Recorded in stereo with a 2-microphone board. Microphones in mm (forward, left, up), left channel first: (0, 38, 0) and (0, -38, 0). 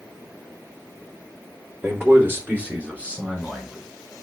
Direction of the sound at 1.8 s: 35° right (ahead or behind).